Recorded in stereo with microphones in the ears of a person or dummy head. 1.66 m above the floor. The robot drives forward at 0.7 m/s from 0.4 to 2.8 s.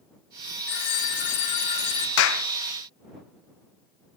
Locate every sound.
0.7 s a phone ringing: 55° left (ahead or behind), 1.5 m; by 2.1 s 40° left (ahead or behind), 1.9 m
2.2 s a clap: 80° left, 1.0 m; by 2.5 s 75° left (ahead or behind), 1.0 m